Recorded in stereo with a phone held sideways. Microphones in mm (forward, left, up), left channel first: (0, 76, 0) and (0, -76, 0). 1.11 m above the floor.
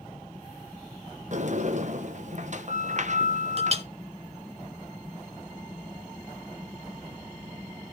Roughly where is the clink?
Right.